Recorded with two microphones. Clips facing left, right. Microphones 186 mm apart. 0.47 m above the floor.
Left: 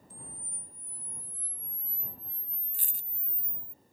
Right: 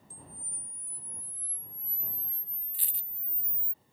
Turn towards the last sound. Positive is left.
turn(degrees=45)  # may be behind; listen again after turning